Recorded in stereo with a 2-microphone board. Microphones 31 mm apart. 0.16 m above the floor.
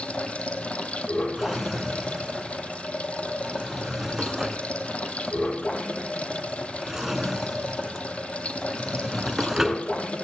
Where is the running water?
40° left (ahead or behind), 1.9 m.